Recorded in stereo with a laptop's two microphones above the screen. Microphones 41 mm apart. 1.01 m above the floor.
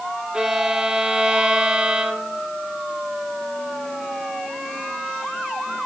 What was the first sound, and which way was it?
A violin, 20° right (ahead or behind).